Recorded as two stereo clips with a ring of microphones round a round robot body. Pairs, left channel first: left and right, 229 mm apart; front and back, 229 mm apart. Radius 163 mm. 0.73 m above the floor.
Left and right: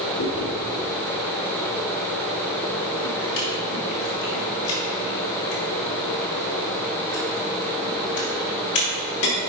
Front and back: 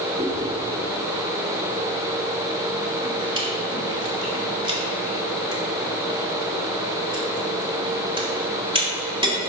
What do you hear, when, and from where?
0.2 s chewing: 110° left, 2.5 m